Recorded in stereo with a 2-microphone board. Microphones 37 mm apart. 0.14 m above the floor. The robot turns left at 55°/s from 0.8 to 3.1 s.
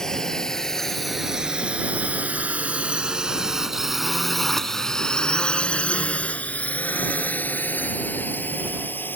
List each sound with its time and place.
0.0 s a drone: 15° left (ahead or behind); by 9.2 s 65° left (ahead or behind)